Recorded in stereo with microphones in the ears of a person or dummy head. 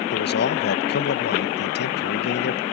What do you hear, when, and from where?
0.1 s a man speaking: 50° left (ahead or behind)